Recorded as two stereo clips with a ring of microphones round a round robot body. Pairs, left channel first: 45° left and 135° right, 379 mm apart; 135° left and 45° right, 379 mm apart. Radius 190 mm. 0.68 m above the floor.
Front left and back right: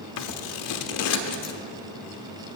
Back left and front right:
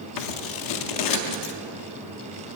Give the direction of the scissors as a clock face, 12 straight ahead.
9 o'clock.